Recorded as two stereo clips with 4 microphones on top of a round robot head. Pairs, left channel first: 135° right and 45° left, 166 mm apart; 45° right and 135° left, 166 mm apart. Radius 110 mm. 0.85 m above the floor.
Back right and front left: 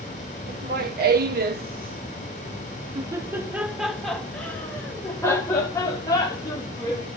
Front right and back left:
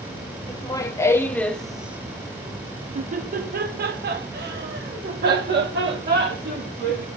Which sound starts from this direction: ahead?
Laughter, at 0.5 s.